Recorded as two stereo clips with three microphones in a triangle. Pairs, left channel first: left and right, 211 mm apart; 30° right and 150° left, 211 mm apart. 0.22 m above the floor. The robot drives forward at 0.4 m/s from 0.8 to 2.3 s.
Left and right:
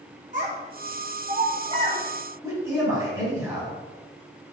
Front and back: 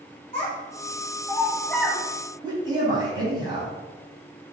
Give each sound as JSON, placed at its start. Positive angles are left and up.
{"t": 0.3, "sound": "a child speaking", "azimuth_deg": -75, "distance_m": 0.8}
{"t": 2.4, "sound": "a man speaking", "azimuth_deg": -155, "distance_m": 1.3}